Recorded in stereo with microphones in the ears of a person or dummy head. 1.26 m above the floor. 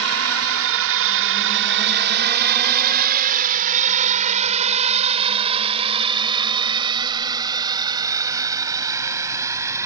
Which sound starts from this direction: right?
A drone, at 0.0 s.